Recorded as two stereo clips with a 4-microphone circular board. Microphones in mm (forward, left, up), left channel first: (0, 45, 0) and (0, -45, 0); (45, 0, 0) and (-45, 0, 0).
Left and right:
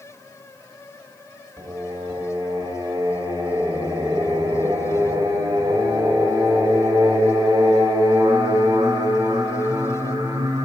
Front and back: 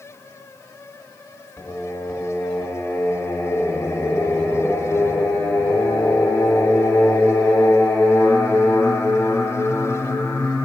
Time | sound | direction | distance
1.6 | singing | 60° right | 1.5 m